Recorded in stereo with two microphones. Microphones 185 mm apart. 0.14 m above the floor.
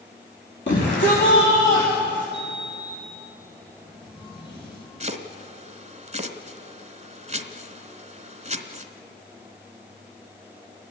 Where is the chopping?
35° right (ahead or behind), 1.2 m.